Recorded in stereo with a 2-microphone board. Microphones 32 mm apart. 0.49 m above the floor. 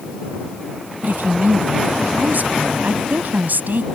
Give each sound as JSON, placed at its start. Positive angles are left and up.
{"t": 1.0, "sound": "a woman speaking", "side_deg": -75}